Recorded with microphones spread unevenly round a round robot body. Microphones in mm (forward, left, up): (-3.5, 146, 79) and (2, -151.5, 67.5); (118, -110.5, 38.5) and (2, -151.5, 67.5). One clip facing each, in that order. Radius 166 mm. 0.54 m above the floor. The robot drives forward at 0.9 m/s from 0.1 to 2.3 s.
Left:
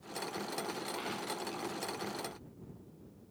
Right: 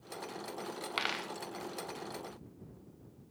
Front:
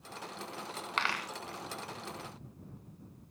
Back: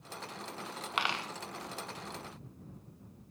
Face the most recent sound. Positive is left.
turn(degrees=-140)